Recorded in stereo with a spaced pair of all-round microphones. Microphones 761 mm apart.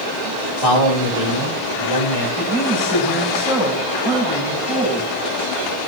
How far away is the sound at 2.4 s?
About 6.5 m.